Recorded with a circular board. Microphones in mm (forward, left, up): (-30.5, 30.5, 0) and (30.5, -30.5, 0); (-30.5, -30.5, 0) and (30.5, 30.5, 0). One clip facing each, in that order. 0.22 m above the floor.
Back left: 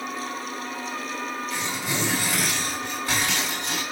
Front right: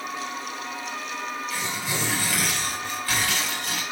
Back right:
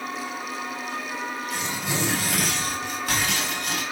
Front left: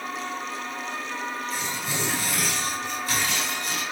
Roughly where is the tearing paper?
Behind right.